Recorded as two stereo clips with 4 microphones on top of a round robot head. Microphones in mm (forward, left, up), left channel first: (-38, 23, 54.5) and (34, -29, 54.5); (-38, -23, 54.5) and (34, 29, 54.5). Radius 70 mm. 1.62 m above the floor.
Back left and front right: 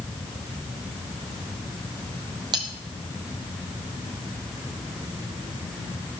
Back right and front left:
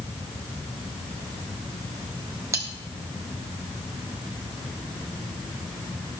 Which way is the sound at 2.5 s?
15° right.